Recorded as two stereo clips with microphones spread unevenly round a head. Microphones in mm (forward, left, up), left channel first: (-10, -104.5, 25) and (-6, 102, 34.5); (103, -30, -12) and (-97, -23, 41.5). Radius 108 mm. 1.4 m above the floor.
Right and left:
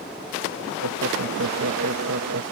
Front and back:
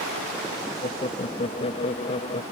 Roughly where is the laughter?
Ahead left.